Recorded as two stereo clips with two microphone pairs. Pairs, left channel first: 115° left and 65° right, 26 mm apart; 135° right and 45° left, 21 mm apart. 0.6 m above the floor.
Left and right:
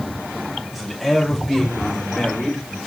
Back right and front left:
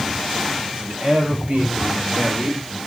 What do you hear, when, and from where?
0.7 s a man speaking: 25° left, 3.5 m; by 2.8 s 45° left, 3 m